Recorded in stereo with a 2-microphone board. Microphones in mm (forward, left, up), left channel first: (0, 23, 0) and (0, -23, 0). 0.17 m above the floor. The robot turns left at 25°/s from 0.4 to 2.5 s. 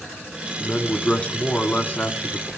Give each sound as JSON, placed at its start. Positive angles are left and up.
{"t": 0.6, "sound": "a man speaking", "azimuth_deg": 145, "distance_m": 1.9}